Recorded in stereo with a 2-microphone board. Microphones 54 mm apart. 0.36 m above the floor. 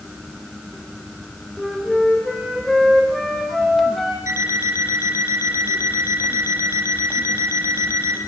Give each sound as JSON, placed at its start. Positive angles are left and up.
{"t": 1.6, "sound": "a flute", "side_deg": 0, "distance_m": 6.0}
{"t": 4.3, "sound": "an alarm clock", "side_deg": -65, "distance_m": 6.5}